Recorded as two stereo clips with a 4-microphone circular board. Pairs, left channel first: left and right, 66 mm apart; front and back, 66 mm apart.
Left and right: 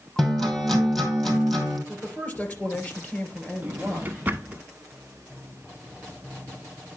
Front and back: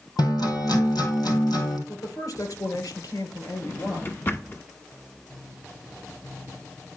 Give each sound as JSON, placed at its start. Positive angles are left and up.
{"t": 0.2, "sound": "a guitar", "azimuth_deg": 10, "distance_m": 2.0}
{"t": 1.9, "sound": "a woman speaking", "azimuth_deg": 25, "distance_m": 3.0}
{"t": 3.6, "sound": "a drawer", "azimuth_deg": -40, "distance_m": 1.1}